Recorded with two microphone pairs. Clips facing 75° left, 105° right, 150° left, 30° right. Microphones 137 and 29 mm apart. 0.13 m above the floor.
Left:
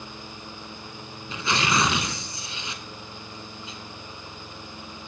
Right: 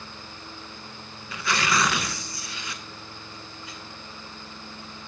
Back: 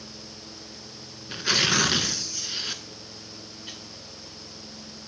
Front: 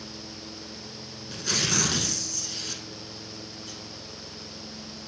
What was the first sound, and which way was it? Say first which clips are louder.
Tearing paper: left 1 dB, back 5 dB; 130° left.